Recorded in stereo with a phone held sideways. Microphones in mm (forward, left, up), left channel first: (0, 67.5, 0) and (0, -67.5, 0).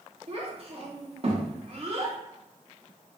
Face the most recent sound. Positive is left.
turn(degrees=-50)  # may be behind; listen again after turning